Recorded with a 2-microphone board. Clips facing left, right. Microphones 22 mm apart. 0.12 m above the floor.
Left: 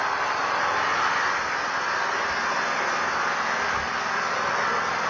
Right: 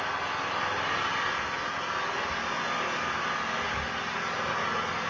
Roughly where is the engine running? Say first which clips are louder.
Left 6 dB; left.